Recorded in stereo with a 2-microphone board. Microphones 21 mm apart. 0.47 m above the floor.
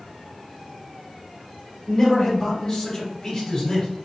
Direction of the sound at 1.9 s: 25° left (ahead or behind).